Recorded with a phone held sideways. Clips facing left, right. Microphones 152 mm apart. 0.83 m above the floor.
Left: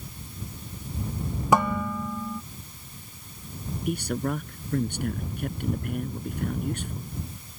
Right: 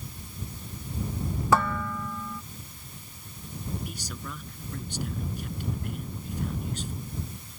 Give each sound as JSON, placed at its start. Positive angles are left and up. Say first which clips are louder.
{"t": 1.5, "sound": "dishes clattering", "louder": "left 3 dB", "side_deg": 15}
{"t": 3.9, "sound": "a man speaking", "louder": "left 12 dB", "side_deg": 60}